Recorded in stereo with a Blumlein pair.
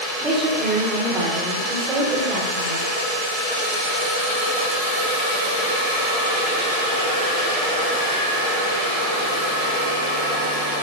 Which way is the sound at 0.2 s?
25° right.